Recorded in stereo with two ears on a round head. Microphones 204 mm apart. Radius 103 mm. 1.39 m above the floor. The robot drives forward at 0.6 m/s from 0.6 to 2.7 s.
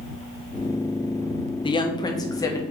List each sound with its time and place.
1.6 s a woman speaking: 25° left (ahead or behind), 1.2 m; by 2.6 s 15° left (ahead or behind), 1.7 m